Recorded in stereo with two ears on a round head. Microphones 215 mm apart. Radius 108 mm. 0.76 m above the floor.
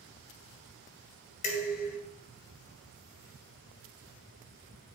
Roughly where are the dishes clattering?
Left.